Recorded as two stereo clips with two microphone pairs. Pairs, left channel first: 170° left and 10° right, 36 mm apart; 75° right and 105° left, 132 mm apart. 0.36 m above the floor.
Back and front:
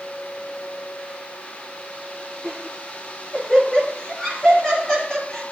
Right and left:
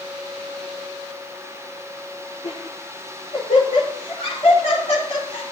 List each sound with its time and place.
2.4 s laughter: 115° right, 4 m